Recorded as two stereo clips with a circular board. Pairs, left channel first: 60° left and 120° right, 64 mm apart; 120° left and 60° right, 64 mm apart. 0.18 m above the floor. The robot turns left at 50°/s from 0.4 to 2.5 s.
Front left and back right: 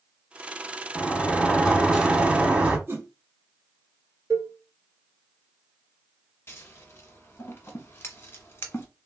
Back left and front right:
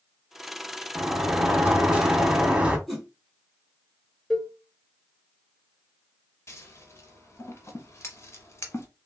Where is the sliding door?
25° right, 0.7 m; by 2.8 s 100° right, 0.7 m.